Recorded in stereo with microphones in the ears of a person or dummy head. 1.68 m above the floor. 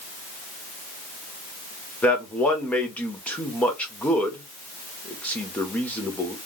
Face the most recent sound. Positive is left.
turn(degrees=10)  # may be behind; listen again after turning